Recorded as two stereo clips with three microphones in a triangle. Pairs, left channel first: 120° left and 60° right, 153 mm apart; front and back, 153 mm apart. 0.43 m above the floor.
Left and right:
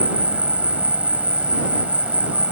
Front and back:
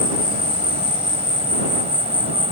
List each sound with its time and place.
0.0 s an insect: 140° right